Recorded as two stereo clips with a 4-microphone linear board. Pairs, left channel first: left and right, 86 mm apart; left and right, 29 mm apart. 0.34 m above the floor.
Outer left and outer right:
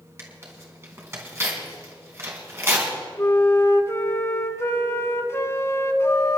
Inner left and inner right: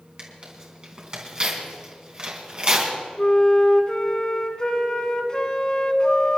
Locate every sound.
0.2 s tearing paper: 30° right (ahead or behind), 3.5 m
3.2 s a flute: 30° left (ahead or behind), 1.1 m